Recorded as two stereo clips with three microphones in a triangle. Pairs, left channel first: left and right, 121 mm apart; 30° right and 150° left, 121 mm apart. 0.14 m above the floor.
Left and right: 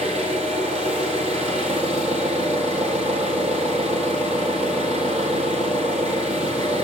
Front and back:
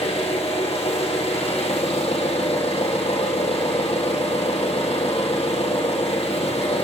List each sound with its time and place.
0.0 s an engine running: 65° right, 2.5 m